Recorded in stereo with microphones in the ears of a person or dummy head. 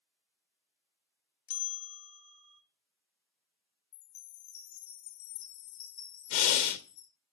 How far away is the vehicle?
I don't hear a vehicle.